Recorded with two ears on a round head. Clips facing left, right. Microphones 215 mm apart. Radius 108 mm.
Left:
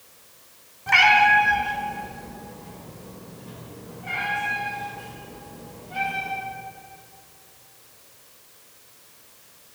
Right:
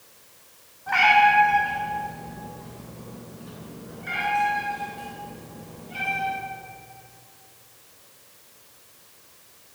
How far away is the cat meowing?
About 1.3 m.